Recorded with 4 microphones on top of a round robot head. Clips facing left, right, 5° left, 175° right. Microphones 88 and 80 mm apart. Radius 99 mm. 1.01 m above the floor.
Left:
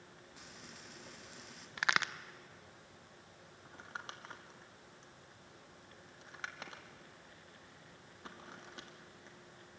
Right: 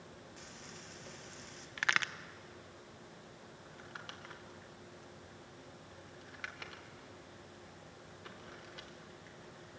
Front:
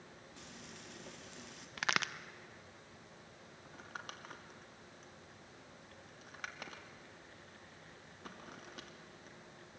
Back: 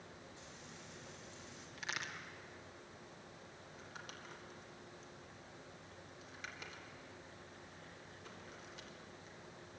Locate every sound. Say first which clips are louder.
0.4 s frying: right 2 dB, front 1 dB; 5° left, 2.5 m
1.8 s a crack: left 1 dB, front 9 dB; 15° left, 0.7 m
3.6 s crumpling: left 3 dB, front 6 dB; 30° left, 2 m